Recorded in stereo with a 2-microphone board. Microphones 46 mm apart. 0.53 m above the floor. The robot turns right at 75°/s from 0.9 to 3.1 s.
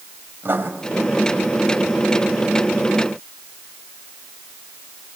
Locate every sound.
0.4 s writing: 55° right (ahead or behind), 3 m